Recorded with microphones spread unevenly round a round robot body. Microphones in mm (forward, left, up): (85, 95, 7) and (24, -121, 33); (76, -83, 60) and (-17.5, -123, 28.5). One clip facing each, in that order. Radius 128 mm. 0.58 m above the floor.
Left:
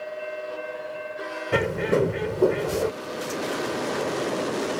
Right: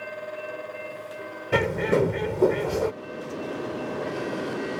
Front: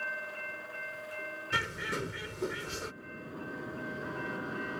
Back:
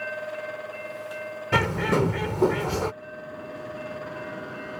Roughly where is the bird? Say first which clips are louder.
Even, back 14 dB; behind.